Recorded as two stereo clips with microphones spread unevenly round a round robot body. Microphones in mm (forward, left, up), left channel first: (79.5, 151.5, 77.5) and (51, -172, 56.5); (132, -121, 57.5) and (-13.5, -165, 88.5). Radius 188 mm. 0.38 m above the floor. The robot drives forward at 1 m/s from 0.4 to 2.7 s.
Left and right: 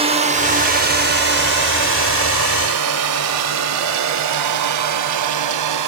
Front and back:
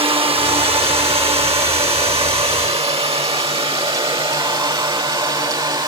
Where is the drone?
140° right; by 5.9 s 100° right.